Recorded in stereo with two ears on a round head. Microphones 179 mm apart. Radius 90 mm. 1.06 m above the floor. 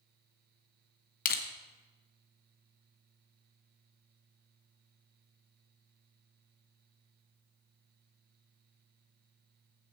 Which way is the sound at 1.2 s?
45° left (ahead or behind).